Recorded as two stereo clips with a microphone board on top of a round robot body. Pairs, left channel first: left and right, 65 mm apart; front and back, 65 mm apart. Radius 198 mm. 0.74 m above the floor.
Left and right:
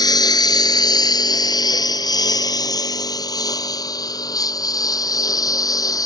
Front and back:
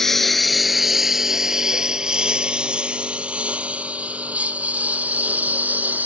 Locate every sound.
0.0 s a lawn mower: 85° left; by 6.0 s 115° left